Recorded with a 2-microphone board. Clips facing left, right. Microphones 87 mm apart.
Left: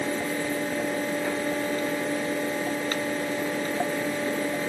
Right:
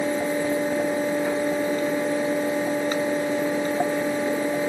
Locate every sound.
Only background noise.